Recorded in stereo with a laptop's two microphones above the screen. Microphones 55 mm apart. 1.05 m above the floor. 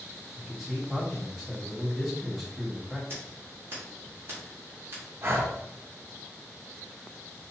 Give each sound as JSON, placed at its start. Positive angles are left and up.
{"t": 0.3, "sound": "a man speaking", "side_deg": -5, "distance_m": 1.8}
{"t": 3.1, "sound": "scissors", "side_deg": -40, "distance_m": 1.9}
{"t": 5.2, "sound": "breathing", "side_deg": -45, "distance_m": 1.0}